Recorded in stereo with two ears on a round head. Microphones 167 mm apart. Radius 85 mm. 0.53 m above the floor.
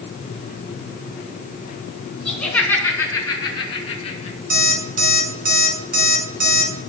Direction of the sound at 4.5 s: 55° right (ahead or behind).